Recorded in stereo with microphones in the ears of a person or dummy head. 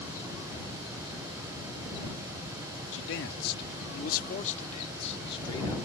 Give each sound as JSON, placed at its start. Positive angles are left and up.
{"t": 2.9, "sound": "a man speaking", "side_deg": 75}